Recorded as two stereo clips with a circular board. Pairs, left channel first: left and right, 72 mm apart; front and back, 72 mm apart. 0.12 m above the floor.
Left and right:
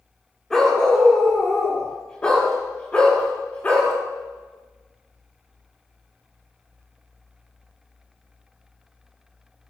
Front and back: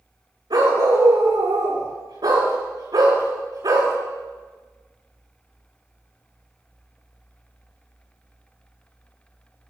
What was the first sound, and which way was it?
A dog barking, 175° left.